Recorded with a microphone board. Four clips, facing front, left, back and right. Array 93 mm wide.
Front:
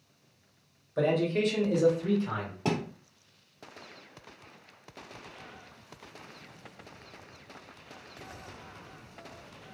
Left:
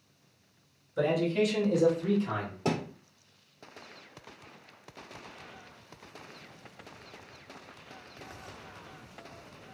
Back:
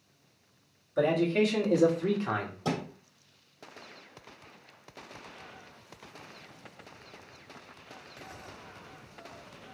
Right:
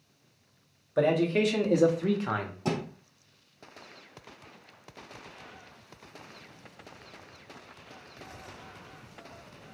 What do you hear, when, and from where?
1.0 s a man speaking: 85° right, 1.4 m; by 2.5 s 125° right, 1.0 m
2.6 s a thud: 15° left, 2 m